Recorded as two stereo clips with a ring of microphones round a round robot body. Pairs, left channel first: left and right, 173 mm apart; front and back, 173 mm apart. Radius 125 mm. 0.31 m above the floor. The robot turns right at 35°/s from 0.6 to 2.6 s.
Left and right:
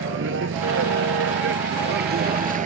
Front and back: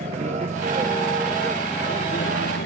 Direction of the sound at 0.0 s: 115° right.